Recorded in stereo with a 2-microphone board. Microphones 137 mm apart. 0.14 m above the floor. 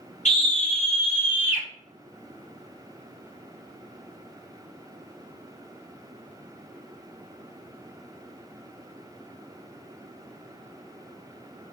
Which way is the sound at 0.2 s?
60° left (ahead or behind).